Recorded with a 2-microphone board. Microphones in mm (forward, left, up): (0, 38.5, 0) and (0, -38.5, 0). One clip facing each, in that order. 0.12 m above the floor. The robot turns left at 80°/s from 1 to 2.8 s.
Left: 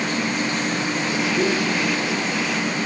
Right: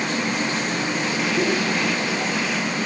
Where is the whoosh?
25° right (ahead or behind), 3.5 m; by 1.6 s 45° right (ahead or behind), 3.5 m.